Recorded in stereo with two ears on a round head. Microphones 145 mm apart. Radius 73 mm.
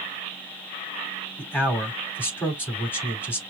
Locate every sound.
1.4 s a man speaking: 15° left (ahead or behind), 3 m